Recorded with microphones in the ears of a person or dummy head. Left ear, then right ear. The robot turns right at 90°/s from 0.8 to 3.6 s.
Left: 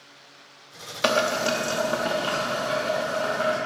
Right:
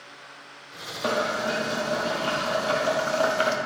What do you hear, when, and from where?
1.0 s boiling: 65° left, 0.9 m; by 3.6 s 70° right, 0.9 m